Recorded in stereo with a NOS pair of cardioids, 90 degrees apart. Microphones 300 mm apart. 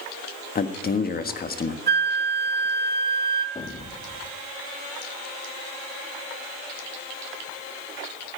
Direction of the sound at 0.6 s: 30° left.